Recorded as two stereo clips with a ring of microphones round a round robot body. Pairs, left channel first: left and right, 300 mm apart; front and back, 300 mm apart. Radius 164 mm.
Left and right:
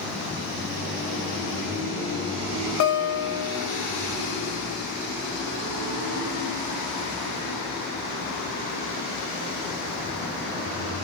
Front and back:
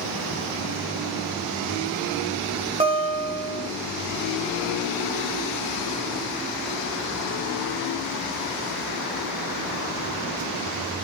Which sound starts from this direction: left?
A guitar, at 2.8 s.